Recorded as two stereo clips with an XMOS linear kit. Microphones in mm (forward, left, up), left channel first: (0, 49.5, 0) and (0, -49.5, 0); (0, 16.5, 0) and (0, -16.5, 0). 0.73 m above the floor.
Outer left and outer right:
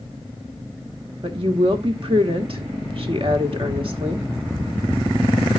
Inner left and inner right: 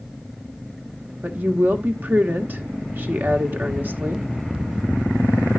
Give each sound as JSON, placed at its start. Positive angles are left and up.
{"t": 1.2, "sound": "a woman speaking", "side_deg": -65, "distance_m": 1.4}